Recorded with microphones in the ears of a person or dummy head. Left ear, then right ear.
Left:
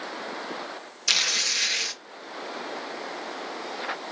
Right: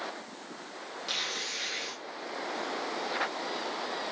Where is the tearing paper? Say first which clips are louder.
Left 11 dB; 70° left (ahead or behind), 0.7 m.